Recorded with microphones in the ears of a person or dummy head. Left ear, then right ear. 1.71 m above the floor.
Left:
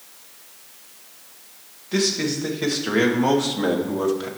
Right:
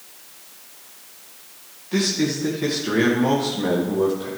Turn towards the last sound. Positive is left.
turn(degrees=55)  # may be behind; listen again after turning